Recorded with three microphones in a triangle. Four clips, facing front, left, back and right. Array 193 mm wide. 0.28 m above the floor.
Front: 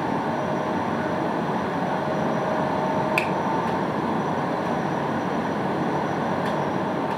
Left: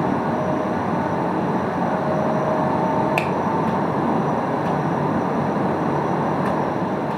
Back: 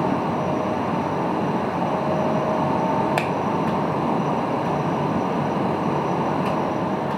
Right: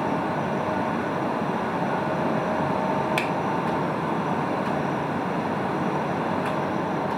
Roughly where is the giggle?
No giggle in this recording.